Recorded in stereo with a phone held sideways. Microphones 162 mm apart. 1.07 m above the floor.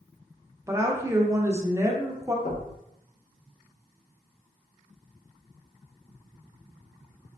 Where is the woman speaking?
20° right (ahead or behind), 0.7 m.